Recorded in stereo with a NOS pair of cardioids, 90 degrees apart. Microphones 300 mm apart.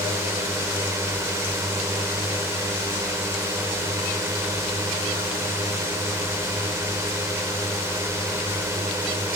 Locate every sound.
0.0 s a drone: 10° right